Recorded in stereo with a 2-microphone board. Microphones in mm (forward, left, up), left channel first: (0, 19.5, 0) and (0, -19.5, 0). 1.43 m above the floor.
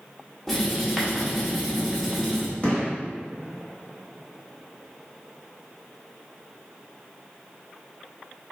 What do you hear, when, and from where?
0.5 s writing: 5° left (ahead or behind), 0.8 m
2.6 s a gunshot: 30° left (ahead or behind), 1.5 m